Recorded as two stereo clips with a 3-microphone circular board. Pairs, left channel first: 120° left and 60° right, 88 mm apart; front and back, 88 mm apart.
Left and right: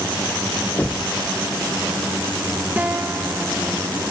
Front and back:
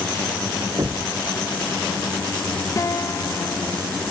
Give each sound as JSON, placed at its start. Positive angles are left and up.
{"t": 0.8, "sound": "knocking", "azimuth_deg": 180, "distance_m": 0.8}
{"t": 2.8, "sound": "a guitar", "azimuth_deg": 0, "distance_m": 0.8}